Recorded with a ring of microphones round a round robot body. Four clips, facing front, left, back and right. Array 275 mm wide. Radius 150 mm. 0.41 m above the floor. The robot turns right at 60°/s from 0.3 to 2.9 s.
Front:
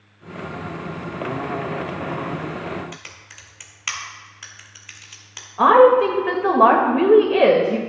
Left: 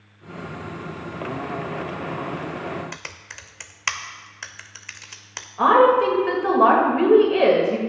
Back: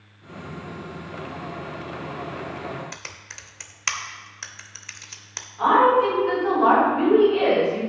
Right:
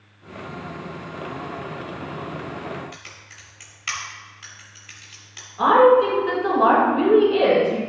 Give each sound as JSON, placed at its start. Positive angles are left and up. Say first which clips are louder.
{"t": 2.9, "sound": "typing on a keyboard", "louder": "left 4 dB, even", "azimuth_deg": 105, "distance_m": 0.7}
{"t": 5.6, "sound": "a woman speaking", "louder": "right 1 dB, front 5 dB", "azimuth_deg": 15, "distance_m": 1.8}